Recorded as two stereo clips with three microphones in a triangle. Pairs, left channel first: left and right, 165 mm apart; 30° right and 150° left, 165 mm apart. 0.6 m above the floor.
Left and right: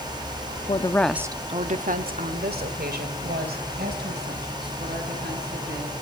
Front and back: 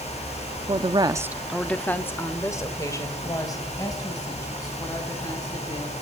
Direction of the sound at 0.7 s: 115° left.